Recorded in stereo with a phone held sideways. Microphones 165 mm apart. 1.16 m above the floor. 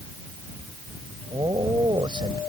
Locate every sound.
1.3 s a man speaking: 30° right (ahead or behind)